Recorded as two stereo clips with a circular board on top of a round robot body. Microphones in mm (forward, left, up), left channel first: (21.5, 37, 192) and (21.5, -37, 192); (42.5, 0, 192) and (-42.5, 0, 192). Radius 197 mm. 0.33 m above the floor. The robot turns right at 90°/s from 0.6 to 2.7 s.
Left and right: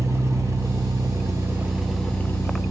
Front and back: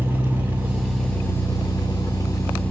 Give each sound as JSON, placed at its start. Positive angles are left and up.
{"t": 0.0, "sound": "an engine running", "azimuth_deg": -120, "distance_m": 1.1}